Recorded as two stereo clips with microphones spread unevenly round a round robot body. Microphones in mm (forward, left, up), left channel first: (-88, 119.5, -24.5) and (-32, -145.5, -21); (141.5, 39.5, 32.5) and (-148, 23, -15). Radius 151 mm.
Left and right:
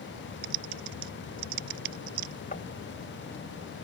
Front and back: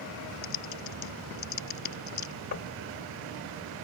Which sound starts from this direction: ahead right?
Typing on a keyboard, at 0.4 s.